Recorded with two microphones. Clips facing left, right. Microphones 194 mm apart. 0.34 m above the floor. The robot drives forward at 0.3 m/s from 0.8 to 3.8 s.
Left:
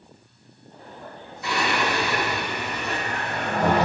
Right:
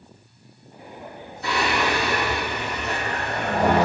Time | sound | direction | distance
1.4 | singing | 35° right (ahead or behind) | 1.3 m